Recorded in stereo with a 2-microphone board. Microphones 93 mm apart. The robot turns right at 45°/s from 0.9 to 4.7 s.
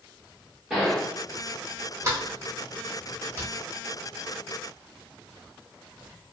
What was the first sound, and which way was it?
A gunshot, 10° right (ahead or behind).